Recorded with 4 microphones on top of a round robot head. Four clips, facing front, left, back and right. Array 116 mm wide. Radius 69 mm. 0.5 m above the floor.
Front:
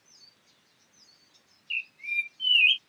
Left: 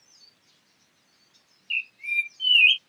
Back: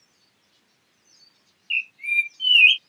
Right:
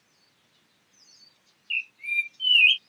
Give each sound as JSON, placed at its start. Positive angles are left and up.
{"t": 1.7, "sound": "a bird", "azimuth_deg": 180}